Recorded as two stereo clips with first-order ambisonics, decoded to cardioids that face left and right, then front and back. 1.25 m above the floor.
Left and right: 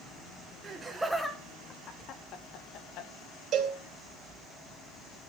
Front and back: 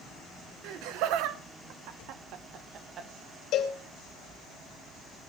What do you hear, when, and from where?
0.6 s laughter: 160° right, 1.2 m; by 3.1 s 120° left, 1.9 m
3.5 s a cowbell: 40° right, 2.5 m